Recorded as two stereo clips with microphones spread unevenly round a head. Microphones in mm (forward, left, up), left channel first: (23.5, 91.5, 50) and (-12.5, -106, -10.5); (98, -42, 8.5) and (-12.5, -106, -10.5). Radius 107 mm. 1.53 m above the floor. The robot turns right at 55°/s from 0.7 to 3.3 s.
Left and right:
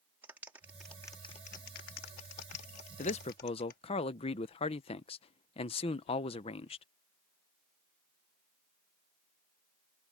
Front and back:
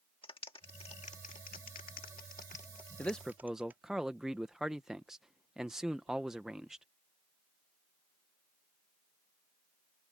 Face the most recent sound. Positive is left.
turn(degrees=115)